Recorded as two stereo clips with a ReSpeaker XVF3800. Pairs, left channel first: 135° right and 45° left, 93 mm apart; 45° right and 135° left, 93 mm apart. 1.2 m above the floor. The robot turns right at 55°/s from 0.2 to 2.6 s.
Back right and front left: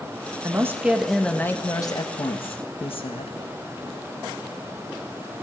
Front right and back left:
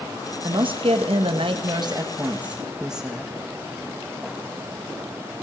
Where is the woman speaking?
100° left, 1.5 m; by 3.4 s 140° right, 1.5 m.